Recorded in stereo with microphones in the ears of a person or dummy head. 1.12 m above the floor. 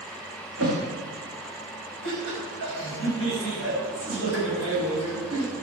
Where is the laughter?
80° right, 6 m.